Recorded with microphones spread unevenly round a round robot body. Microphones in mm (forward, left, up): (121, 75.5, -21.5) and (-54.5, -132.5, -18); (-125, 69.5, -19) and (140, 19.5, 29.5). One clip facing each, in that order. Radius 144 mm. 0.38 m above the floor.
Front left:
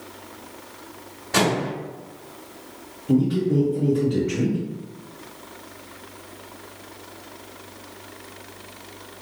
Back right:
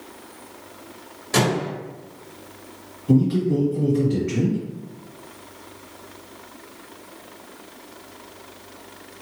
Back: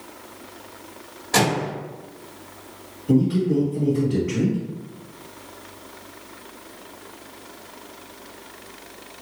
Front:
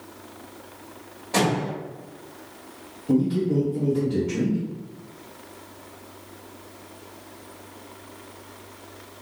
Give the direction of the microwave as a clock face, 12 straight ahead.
5 o'clock.